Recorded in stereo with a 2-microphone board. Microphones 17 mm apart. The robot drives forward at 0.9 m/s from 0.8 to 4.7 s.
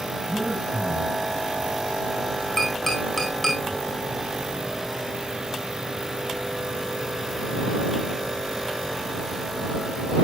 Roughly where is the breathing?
Centre.